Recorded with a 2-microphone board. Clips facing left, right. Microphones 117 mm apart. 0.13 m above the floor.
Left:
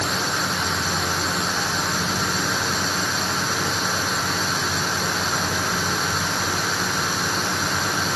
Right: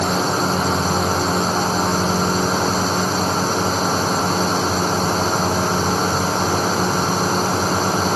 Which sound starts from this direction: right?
A drone, at 0.0 s.